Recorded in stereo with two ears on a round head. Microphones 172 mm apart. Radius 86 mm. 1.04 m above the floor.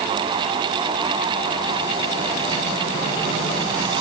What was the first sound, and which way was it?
Only background noise.